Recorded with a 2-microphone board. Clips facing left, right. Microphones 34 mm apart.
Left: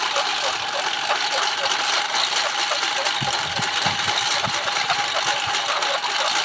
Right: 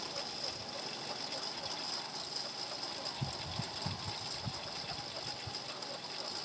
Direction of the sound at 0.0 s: 80° left.